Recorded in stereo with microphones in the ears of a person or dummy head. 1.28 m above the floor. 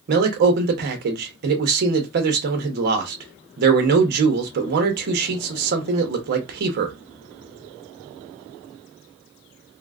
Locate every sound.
0.1 s a man speaking: 55° right (ahead or behind), 0.8 m